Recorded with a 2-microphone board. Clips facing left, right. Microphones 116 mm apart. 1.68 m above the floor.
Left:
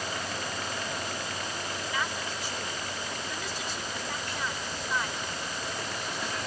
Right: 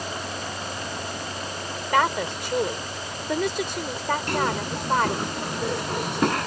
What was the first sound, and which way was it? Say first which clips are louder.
A woman speaking: right 14 dB; 85° right.